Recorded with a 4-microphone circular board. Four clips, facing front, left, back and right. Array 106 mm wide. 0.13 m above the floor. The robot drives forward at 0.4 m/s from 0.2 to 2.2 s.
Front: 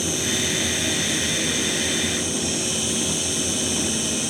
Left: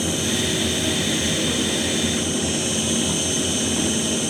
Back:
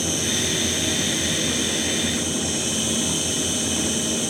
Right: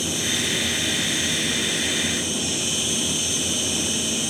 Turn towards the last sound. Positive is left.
turn(degrees=-75)